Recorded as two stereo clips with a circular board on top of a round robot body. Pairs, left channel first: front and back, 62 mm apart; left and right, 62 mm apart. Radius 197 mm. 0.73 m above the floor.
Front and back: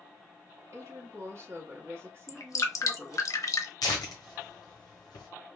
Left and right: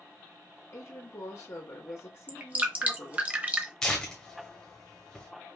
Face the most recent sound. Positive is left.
turn(degrees=5)